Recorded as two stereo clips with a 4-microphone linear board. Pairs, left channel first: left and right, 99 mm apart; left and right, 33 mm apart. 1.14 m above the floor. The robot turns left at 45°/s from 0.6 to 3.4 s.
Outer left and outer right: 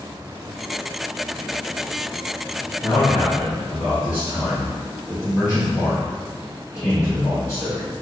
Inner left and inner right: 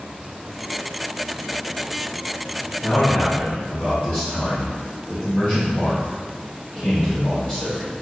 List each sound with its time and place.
2.8 s a man speaking: 55° left (ahead or behind), 1.8 m; by 7.9 s 30° left (ahead or behind), 1.8 m